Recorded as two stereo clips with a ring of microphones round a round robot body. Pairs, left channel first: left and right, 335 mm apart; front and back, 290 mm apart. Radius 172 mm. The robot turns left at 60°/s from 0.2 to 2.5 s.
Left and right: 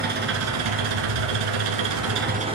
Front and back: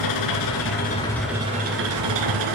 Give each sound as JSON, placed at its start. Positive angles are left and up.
{"t": 0.0, "sound": "an engine running", "azimuth_deg": -25, "distance_m": 1.9}